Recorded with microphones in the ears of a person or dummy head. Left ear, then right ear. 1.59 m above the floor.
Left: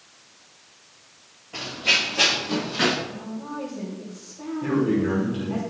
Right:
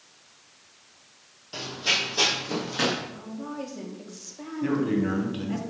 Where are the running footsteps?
45° right (ahead or behind), 2.5 m.